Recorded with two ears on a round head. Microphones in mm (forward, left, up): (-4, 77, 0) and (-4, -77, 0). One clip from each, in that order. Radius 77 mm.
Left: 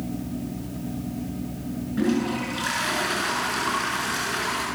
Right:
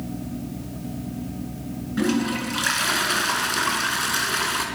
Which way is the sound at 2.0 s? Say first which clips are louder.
Right 1 dB; 40° right (ahead or behind).